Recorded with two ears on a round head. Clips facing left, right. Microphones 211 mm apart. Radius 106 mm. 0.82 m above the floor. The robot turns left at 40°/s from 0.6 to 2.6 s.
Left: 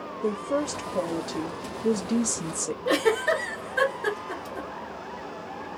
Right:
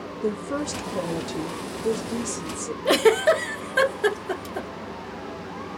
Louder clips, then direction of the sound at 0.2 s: Even; 140° right.